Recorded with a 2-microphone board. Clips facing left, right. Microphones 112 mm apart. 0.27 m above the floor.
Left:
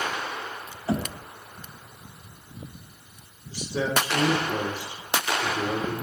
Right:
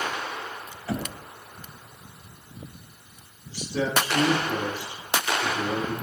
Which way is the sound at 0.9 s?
25° left (ahead or behind).